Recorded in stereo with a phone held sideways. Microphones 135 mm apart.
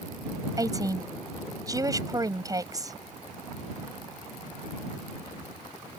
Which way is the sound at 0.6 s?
25° right (ahead or behind).